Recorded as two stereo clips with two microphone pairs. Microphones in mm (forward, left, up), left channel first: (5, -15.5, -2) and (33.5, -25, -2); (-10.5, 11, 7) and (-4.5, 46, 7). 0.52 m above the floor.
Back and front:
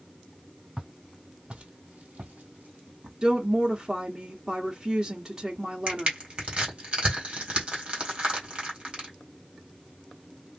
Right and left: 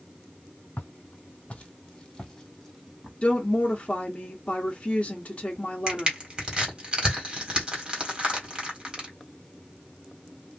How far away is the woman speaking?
About 0.9 m.